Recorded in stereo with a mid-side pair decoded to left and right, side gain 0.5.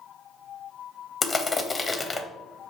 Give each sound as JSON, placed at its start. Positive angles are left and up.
{"t": 1.2, "sound": "crushing", "azimuth_deg": 25, "distance_m": 0.8}